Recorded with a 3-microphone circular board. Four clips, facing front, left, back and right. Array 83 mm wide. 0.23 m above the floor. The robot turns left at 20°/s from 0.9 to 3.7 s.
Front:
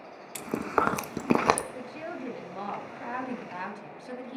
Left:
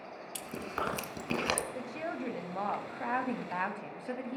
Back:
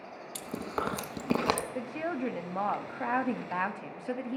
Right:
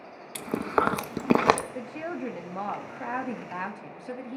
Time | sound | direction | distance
0.3 | chewing | 55° right | 0.6 m
1.8 | a woman speaking | 150° right | 1.0 m